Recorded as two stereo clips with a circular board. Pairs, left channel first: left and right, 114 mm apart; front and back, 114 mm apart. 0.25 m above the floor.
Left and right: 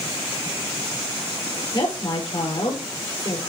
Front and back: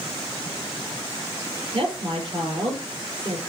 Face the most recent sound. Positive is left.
turn(degrees=140)